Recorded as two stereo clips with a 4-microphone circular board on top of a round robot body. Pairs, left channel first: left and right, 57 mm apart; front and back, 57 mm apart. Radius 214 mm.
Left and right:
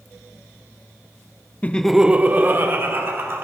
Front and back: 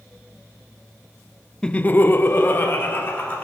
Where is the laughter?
65° left, 0.5 m; by 3.5 s 50° right, 1.4 m.